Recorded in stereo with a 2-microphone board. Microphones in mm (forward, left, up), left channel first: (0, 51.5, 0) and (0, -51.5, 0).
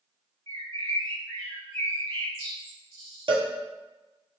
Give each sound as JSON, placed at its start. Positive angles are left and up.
{"t": 0.5, "sound": "a bird", "side_deg": 30, "distance_m": 1.5}
{"t": 3.3, "sound": "a cowbell", "side_deg": -55, "distance_m": 0.5}